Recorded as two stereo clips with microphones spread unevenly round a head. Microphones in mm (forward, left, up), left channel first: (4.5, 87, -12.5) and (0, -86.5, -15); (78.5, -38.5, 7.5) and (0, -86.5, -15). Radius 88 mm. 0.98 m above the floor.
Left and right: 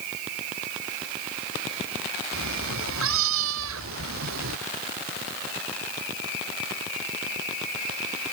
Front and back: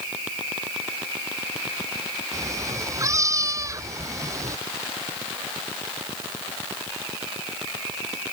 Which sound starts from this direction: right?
A cat meowing, at 2.3 s.